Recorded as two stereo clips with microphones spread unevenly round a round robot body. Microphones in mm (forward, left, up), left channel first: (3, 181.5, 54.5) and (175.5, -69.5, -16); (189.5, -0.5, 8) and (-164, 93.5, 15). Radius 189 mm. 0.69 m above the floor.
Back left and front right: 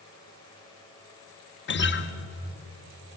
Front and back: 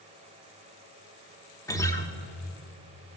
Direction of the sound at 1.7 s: 65° left.